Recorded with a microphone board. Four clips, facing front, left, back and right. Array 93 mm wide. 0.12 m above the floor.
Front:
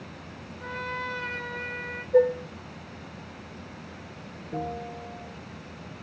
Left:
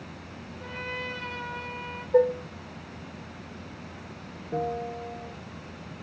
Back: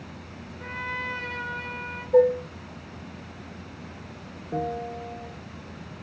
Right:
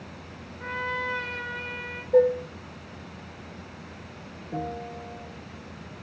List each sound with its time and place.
0.6 s a trumpet: 135° right, 1.5 m
2.1 s dishes clattering: 130° right, 1.7 m
4.5 s a bell: 160° left, 0.6 m